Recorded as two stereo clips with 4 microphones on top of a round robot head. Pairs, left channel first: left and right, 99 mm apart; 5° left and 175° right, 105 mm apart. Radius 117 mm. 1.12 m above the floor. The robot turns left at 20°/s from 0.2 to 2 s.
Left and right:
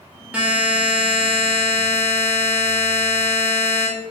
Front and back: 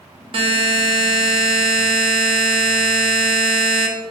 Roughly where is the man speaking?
I don't hear a man speaking.